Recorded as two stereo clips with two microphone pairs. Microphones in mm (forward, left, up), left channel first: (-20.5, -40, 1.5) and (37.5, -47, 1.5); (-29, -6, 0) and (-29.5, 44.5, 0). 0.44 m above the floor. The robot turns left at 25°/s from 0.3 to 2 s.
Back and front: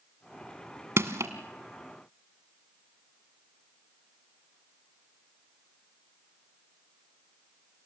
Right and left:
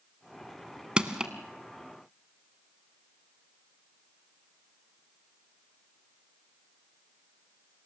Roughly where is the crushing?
Ahead left.